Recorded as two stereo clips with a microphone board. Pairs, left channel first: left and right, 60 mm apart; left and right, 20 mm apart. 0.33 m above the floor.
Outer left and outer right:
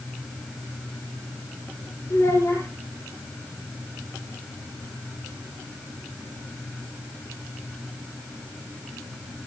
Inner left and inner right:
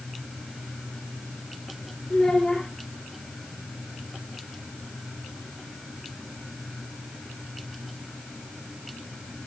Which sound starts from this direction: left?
A child speaking, at 2.1 s.